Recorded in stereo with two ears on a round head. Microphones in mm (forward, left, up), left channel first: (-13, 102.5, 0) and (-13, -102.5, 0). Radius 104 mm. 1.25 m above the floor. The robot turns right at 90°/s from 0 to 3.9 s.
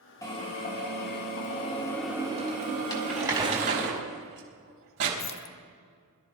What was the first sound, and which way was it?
A drill, 15° left.